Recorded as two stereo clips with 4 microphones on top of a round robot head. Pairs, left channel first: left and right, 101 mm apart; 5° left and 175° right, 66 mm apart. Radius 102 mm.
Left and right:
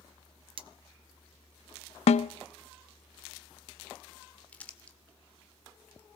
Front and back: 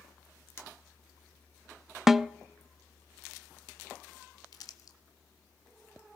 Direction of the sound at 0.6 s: 55° right.